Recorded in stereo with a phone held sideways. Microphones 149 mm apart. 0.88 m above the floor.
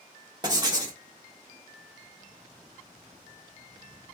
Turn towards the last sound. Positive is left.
turn(degrees=-25)  # may be behind; listen again after turning